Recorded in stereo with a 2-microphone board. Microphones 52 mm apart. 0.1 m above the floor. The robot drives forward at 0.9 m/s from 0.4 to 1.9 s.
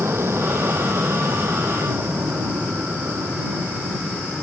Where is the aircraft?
55° right (ahead or behind).